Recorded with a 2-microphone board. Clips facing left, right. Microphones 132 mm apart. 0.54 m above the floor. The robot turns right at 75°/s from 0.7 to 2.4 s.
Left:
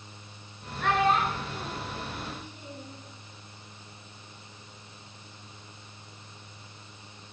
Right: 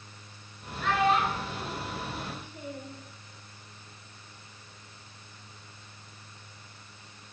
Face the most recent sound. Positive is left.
turn(degrees=-50)  # may be behind; listen again after turning